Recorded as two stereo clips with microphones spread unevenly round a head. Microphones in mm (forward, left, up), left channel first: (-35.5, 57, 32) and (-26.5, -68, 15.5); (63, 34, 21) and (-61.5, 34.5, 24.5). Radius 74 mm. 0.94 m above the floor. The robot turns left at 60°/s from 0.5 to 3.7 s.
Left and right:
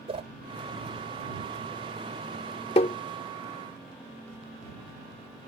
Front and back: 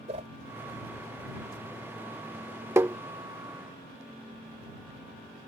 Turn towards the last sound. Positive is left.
turn(degrees=60)